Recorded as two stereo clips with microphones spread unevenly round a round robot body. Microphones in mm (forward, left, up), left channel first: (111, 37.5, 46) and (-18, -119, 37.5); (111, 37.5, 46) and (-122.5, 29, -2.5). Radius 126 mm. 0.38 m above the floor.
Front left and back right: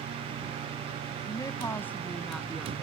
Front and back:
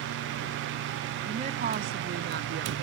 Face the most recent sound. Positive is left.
turn(degrees=140)